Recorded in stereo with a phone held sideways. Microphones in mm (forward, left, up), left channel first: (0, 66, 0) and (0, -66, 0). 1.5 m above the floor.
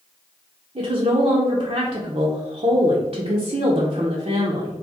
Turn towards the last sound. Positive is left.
turn(degrees=-55)  # may be behind; listen again after turning